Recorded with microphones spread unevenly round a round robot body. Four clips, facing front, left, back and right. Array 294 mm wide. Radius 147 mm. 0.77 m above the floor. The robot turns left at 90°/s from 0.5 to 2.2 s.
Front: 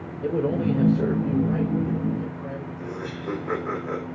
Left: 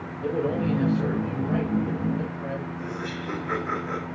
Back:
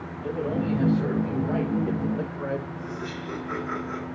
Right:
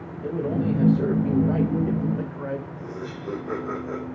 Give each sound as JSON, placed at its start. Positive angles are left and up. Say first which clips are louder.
{"t": 0.2, "sound": "a man speaking", "louder": "even, front 4 dB", "azimuth_deg": 15, "distance_m": 3.5}
{"t": 2.8, "sound": "laughter", "louder": "left 2 dB, front 1 dB", "azimuth_deg": -25, "distance_m": 3.5}